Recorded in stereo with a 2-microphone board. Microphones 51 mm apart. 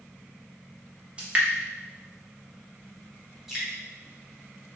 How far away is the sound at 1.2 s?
About 1.2 m.